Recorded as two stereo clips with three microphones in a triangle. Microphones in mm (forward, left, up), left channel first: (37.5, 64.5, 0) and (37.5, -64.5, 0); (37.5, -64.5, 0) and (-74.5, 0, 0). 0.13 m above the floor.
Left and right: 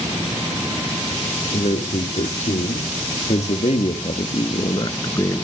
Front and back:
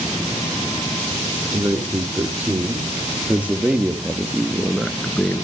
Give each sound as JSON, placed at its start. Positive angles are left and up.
{"t": 1.5, "sound": "a man speaking", "azimuth_deg": 75, "distance_m": 5.0}